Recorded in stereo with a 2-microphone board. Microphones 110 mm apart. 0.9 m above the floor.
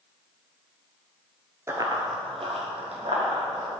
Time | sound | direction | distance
1.7 | running footsteps | 25° right (ahead or behind) | 1.0 m